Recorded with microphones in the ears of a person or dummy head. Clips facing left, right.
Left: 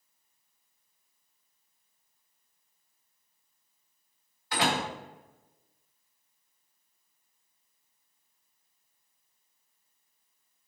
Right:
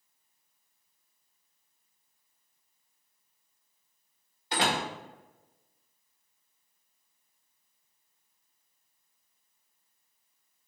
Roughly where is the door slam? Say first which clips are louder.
Left 1 dB; right.